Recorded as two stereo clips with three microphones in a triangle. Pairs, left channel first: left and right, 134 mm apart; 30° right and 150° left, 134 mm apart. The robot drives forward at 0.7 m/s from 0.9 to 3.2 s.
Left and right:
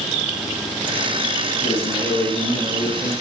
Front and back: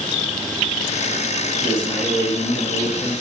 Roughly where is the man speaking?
Ahead left.